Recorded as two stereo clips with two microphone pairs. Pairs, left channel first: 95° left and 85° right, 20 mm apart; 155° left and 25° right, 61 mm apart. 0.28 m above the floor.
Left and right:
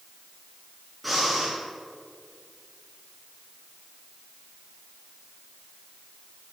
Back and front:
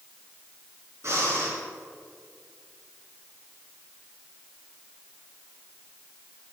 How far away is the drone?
No drone in this recording.